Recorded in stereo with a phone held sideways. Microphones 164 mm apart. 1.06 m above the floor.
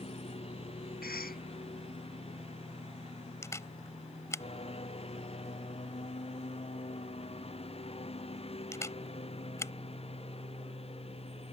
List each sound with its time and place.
0.0 s a lawn mower: 35° left (ahead or behind)
1.0 s a cough: 65° left (ahead or behind)
3.4 s a camera shutter: 20° left (ahead or behind)